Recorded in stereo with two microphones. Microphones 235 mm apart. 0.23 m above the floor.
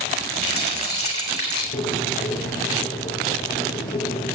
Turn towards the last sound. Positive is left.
turn(degrees=45)  # may be behind; listen again after turning